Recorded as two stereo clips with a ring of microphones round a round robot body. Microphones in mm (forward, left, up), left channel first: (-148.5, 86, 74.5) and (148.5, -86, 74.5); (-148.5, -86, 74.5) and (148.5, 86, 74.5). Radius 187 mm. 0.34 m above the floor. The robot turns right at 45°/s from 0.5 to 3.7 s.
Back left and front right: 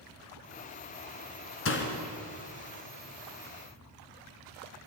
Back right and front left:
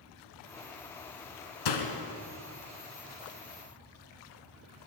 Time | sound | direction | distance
1.6 | a door slam | 155° right | 3 m